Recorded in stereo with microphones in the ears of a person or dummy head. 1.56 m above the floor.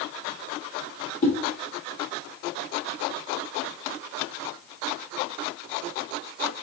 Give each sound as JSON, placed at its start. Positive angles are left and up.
{"t": 1.2, "sound": "a whoosh", "side_deg": 40, "distance_m": 0.8}